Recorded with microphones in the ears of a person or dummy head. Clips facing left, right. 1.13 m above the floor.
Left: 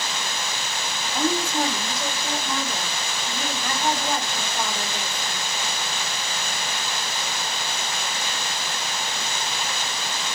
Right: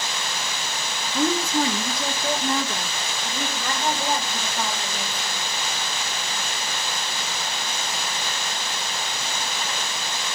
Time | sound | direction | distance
1.1 | a woman speaking | 75° right (ahead or behind) | 0.8 m